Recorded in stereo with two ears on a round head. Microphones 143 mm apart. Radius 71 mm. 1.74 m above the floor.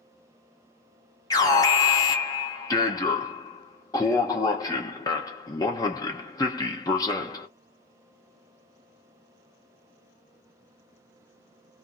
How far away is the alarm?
About 0.9 m.